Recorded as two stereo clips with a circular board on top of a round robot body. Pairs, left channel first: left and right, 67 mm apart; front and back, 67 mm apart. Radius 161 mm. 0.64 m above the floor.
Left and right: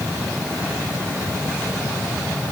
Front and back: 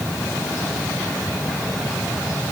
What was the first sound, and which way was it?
Only background noise.